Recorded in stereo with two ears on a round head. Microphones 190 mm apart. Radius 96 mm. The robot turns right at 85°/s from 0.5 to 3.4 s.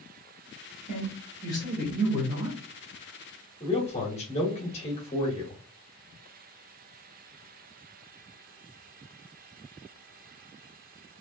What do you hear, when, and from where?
0.9 s a woman speaking: 95° left, 1.5 m; by 2.6 s 120° right, 1.5 m
3.6 s a man speaking: 30° left (ahead or behind), 1.2 m